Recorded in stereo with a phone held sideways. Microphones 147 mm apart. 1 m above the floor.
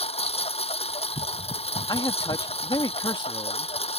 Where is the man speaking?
30° left (ahead or behind).